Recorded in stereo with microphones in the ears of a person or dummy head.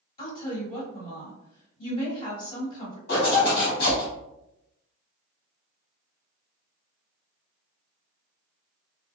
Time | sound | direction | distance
0.2 | a woman speaking | 40° left (ahead or behind) | 1.6 m
3.1 | a zipper | 60° left (ahead or behind) | 1.4 m